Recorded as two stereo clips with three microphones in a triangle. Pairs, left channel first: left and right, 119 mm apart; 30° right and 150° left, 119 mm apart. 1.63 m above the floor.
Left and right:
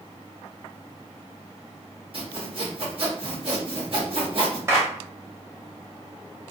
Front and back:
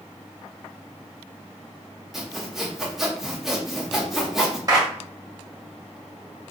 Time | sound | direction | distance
2.1 | sawing | 125° right | 1.1 m
4.7 | a clap | 155° right | 1.1 m